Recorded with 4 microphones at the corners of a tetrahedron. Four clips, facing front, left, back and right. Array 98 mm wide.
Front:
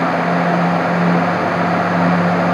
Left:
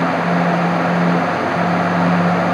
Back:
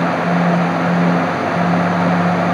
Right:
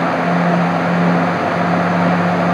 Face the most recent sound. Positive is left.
No sound to turn to.